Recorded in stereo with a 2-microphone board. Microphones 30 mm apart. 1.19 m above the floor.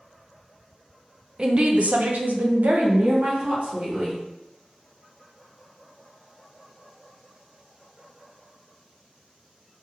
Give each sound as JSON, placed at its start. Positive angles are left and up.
{"t": 1.4, "sound": "a woman speaking", "side_deg": -30, "distance_m": 0.6}